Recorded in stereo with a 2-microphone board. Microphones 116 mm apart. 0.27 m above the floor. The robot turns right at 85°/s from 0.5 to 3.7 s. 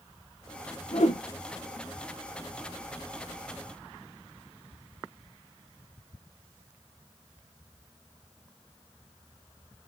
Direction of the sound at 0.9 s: 60° left (ahead or behind).